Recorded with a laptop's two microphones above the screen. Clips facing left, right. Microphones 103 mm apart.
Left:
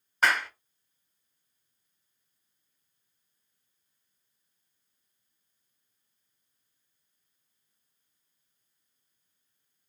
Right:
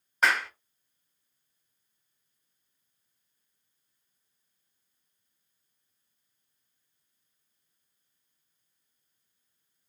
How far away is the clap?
About 1.1 m.